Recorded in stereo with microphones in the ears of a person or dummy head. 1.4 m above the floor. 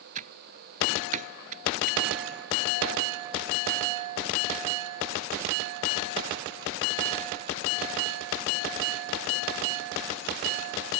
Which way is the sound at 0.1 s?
45° right (ahead or behind).